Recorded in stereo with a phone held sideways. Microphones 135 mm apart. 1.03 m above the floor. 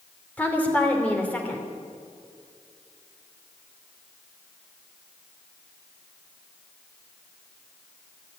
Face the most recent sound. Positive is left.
turn(degrees=10)  # may be behind; listen again after turning